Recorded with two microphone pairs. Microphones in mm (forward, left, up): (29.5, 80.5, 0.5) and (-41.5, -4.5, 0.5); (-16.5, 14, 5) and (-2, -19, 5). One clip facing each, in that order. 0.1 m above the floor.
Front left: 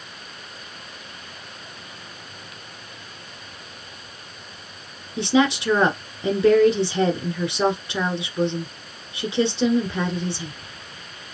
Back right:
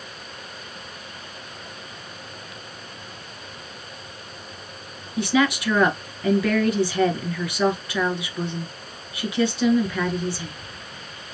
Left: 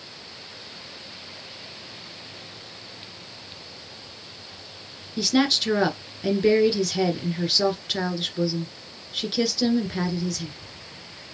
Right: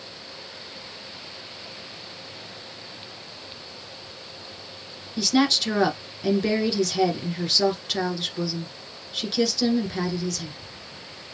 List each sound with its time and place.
5.2 s a woman speaking: 40° left, 1.4 m